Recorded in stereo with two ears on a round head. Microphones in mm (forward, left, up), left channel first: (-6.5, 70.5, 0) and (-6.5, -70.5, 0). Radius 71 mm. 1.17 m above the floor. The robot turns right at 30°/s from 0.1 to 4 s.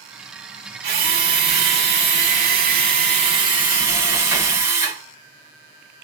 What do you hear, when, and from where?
0.8 s a drill: 110° right, 1.8 m; by 5.0 s 15° right, 1.8 m